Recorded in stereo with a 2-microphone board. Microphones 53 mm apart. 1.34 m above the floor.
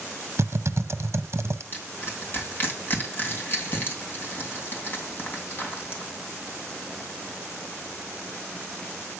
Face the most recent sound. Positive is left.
turn(degrees=35)  # may be behind; listen again after turning